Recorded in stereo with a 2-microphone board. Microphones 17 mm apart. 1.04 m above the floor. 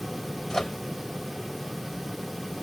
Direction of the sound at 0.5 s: 25° left (ahead or behind).